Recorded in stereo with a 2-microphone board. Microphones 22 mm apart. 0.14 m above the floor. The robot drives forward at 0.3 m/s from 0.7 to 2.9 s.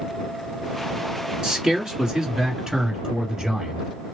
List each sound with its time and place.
1.4 s a man speaking: 35° right (ahead or behind), 1.8 m; by 3.8 s 30° right (ahead or behind), 2.0 m